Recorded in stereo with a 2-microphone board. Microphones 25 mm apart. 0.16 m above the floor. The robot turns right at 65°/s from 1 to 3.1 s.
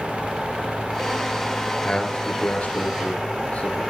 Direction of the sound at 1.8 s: 25° left (ahead or behind).